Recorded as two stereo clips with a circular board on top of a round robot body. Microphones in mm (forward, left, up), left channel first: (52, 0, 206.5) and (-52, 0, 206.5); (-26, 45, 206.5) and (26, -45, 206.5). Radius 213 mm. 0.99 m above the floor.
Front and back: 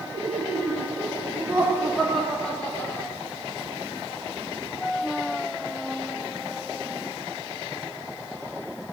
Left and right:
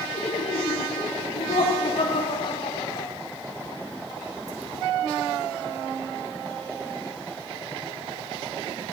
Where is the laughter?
145° left, 2 m; by 3.1 s 70° left, 2.5 m.